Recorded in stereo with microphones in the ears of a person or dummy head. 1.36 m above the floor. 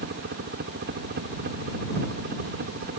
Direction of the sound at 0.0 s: 50° right (ahead or behind).